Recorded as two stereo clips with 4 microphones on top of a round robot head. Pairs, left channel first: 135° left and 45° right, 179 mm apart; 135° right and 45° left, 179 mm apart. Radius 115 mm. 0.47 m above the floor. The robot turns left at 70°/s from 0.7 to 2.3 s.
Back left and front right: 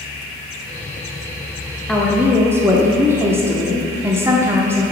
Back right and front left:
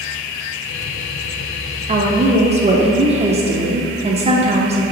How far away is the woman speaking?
About 1.0 m.